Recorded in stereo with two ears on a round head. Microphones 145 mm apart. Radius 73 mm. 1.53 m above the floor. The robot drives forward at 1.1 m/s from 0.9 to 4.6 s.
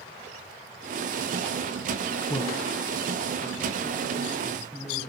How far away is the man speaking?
About 0.5 m.